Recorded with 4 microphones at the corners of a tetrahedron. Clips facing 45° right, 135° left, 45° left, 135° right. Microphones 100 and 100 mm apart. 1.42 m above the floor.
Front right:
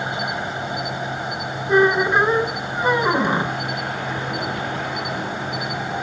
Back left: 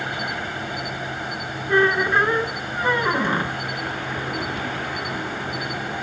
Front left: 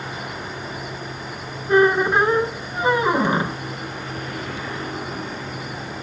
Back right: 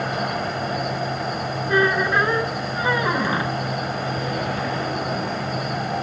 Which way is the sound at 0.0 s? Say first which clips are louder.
Front right 3 dB, back right 7 dB; 115° right.